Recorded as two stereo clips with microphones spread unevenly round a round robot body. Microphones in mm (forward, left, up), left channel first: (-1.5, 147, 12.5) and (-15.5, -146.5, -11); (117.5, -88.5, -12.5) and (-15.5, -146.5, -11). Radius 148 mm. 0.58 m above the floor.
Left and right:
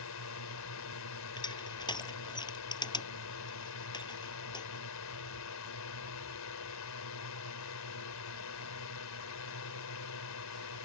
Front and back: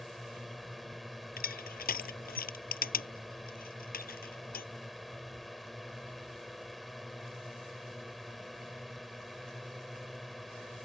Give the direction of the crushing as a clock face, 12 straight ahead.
12 o'clock.